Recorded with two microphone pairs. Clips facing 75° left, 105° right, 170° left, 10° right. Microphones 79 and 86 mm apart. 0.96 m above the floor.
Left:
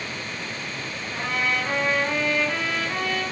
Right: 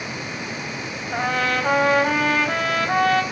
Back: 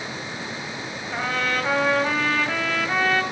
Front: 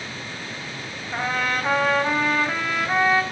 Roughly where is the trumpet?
Right.